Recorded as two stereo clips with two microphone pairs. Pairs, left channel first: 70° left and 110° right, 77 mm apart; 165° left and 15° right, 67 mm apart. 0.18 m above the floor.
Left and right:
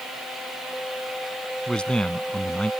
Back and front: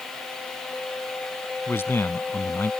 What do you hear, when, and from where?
1.7 s a man speaking: 140° left